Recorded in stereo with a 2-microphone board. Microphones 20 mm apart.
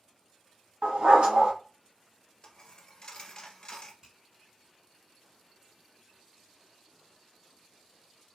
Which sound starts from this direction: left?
A dropped coin, at 2.4 s.